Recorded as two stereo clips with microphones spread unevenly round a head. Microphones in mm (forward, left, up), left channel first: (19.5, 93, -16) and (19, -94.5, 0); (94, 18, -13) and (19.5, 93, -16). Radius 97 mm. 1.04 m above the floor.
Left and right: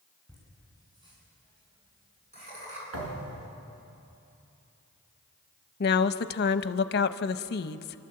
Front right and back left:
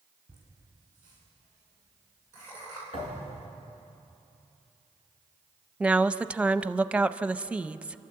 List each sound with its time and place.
0.3 s laughter: 160° right, 9.5 m; by 2.8 s 145° right, 10 m
2.9 s a thud: 80° right, 5.5 m
5.8 s a woman speaking: 55° left, 0.8 m